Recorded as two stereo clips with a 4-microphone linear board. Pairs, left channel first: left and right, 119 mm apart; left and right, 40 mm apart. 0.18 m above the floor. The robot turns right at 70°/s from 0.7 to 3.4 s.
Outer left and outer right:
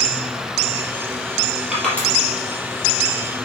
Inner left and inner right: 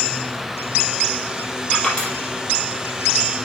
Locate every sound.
1.7 s crushing: 5° right (ahead or behind), 3.5 m; by 2.1 s 20° left (ahead or behind), 3.5 m